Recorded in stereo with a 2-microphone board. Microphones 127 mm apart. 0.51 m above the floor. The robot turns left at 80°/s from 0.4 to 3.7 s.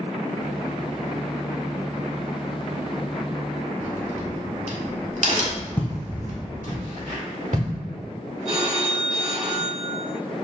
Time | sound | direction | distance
3.8 | a crack | 65° right (ahead or behind) | 0.9 m
5.8 | footsteps | 15° left (ahead or behind) | 1.0 m
8.4 | a phone ringing | 55° right (ahead or behind) | 1.7 m